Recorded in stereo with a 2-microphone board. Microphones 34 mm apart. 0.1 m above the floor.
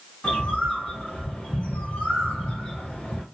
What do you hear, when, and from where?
0.2 s a bird: 30° left (ahead or behind), 1.5 m